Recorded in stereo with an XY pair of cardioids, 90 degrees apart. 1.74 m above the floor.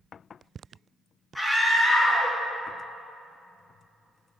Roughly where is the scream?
Ahead.